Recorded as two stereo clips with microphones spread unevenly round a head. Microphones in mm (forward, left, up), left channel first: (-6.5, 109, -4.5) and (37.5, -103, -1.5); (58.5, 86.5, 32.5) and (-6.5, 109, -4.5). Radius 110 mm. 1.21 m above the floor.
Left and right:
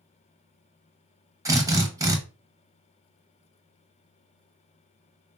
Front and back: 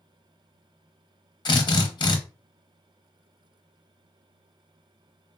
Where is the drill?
Straight ahead, 0.7 m.